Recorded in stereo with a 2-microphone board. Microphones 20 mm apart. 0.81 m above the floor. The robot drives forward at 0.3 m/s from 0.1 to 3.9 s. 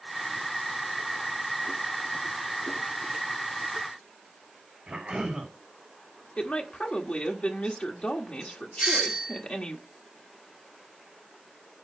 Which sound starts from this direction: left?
A woman speaking, at 6.4 s.